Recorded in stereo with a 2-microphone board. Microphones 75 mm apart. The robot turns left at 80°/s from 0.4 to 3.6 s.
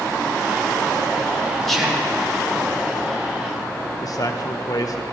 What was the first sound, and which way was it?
Whispering, 5° left.